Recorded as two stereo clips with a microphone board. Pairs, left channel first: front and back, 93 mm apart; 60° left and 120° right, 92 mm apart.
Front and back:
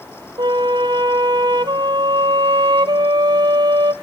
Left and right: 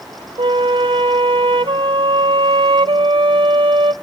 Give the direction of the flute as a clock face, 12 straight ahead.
5 o'clock.